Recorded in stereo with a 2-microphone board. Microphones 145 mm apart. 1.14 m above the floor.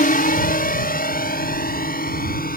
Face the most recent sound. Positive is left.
turn(degrees=80)